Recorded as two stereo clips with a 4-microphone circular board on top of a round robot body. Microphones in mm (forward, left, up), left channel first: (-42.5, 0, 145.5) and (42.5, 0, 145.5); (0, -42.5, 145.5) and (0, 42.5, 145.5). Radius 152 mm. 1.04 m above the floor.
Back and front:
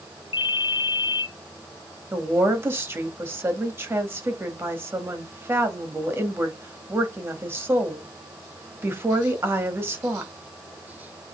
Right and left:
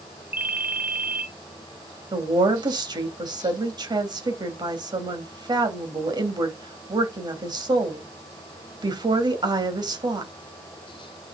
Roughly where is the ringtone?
Behind.